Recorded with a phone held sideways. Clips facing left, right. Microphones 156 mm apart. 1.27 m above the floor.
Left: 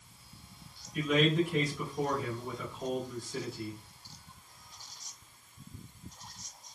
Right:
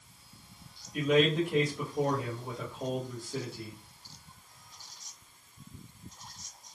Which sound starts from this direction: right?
A man speaking, at 0.9 s.